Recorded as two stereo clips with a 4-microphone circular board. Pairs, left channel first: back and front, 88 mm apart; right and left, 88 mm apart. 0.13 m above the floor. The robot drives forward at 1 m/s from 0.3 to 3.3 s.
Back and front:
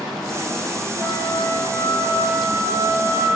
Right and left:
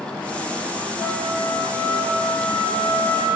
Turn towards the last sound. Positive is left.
turn(degrees=-145)